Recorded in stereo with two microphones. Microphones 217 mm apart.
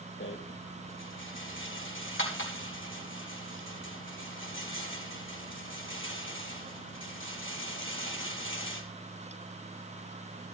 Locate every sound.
0.2 s a rattle: 65° left (ahead or behind), 3.5 m